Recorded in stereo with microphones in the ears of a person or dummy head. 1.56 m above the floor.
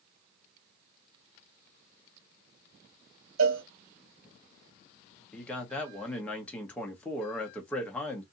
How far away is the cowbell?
About 1.3 m.